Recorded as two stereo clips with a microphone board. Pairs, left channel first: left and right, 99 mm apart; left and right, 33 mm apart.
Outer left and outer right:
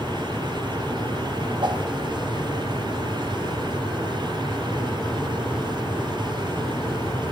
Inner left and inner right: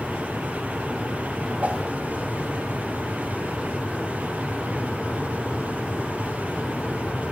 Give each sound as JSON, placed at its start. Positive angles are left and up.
{"t": 1.6, "sound": "a whoosh", "side_deg": -45, "distance_m": 0.9}